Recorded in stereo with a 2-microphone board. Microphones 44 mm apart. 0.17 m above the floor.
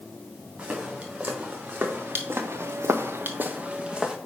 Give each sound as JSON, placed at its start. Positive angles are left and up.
{"t": 0.6, "sound": "footsteps", "side_deg": -35, "distance_m": 3.0}